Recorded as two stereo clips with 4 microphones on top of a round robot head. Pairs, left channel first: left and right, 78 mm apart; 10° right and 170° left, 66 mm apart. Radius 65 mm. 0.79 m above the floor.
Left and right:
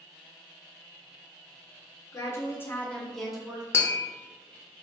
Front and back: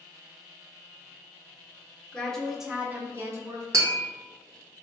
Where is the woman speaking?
60° left, 1.1 m; by 3.6 s 165° right, 1.2 m.